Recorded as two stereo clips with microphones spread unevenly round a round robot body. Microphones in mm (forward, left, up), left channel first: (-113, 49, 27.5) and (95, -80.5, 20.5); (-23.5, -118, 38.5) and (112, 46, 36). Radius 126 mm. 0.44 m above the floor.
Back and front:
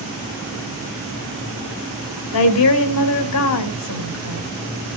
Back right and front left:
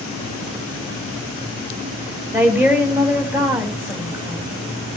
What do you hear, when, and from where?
2.3 s a woman speaking: 130° left, 3.5 m